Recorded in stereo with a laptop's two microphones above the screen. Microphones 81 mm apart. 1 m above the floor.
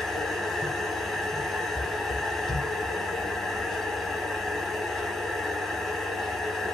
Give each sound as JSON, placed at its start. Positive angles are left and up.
{"t": 0.0, "sound": "a machine running", "side_deg": 0, "distance_m": 0.9}